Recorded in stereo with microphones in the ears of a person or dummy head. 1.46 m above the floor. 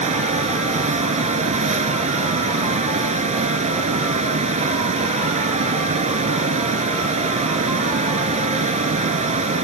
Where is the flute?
No flute in this recording.